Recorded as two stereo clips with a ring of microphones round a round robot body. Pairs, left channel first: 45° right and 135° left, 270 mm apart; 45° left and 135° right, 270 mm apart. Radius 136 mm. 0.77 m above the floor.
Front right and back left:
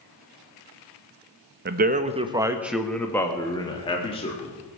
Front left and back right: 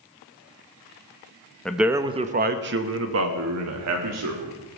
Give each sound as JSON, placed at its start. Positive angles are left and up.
{"t": 1.6, "sound": "a man speaking", "azimuth_deg": 130, "distance_m": 0.8}